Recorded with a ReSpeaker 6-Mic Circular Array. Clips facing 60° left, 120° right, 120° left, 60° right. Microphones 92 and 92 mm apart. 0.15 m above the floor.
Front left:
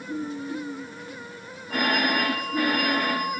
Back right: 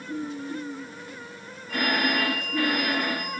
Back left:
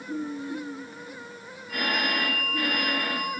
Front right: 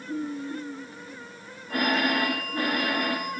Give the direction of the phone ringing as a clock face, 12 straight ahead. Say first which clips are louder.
Front left 1 dB, front right 4 dB; 12 o'clock.